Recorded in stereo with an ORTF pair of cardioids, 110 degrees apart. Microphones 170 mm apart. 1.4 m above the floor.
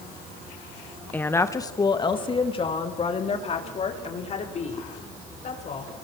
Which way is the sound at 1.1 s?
10° left.